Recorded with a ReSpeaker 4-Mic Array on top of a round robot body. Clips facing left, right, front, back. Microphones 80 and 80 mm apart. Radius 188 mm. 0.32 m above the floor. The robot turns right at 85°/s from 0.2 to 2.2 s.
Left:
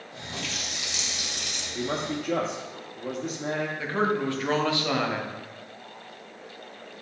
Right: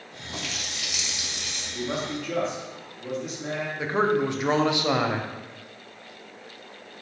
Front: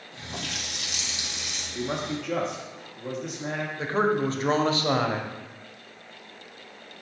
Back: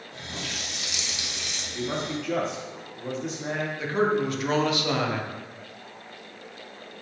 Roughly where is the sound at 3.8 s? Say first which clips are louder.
Right 5 dB, even; ahead right.